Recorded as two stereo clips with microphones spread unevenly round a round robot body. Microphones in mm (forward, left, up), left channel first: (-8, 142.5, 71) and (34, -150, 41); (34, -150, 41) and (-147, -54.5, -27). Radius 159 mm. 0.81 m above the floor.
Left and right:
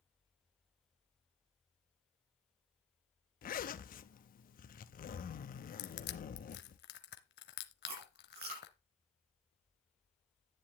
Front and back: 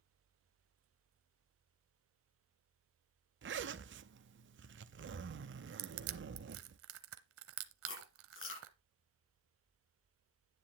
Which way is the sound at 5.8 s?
140° left.